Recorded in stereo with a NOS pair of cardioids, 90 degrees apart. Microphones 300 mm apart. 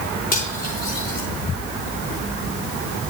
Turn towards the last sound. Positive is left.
turn(degrees=30)